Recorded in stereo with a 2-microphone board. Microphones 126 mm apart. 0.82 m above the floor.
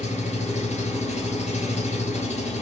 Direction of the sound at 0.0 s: 70° left (ahead or behind).